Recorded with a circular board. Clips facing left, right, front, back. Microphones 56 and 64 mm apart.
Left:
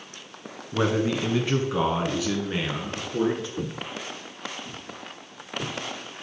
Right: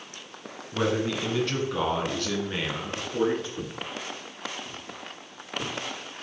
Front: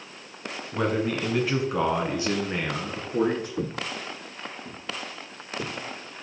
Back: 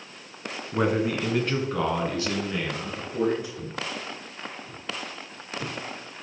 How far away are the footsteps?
About 0.7 m.